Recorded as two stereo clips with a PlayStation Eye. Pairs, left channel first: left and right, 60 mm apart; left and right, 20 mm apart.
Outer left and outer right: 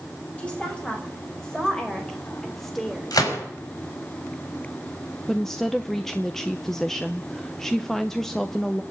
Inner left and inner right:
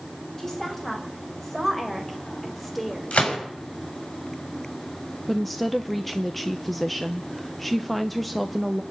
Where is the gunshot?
85° left, 4.5 m.